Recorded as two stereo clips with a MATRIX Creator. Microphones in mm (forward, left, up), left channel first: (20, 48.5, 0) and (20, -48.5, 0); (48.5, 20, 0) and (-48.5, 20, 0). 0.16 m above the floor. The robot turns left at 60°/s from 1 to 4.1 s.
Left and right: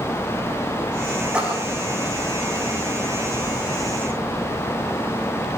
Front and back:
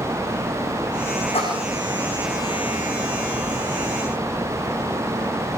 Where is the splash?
10° right, 8.5 m; by 1.8 s 35° right, 8.5 m.